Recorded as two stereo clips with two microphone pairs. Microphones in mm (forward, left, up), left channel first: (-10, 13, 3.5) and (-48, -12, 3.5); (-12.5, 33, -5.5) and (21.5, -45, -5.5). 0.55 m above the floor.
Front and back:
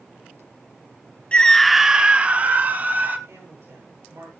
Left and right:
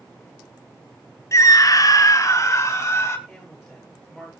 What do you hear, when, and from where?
1.3 s a scream: 90° left, 0.8 m; by 3.2 s 170° left, 2.5 m
3.3 s a woman speaking: 150° right, 9.5 m